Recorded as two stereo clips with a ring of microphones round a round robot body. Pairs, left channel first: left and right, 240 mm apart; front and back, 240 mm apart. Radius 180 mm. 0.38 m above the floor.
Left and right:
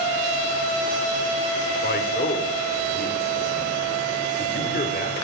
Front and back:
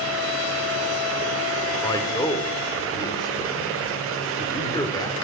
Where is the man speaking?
70° left, 1.1 m.